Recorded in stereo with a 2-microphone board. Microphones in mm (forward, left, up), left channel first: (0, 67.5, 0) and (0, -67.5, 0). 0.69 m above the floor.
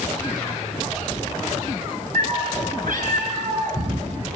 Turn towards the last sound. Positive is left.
turn(degrees=-75)  # may be behind; listen again after turning